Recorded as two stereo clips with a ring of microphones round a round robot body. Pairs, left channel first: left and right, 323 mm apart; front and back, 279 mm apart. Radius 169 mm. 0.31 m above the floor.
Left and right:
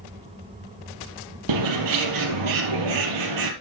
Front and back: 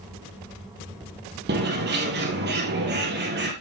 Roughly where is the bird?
Behind right.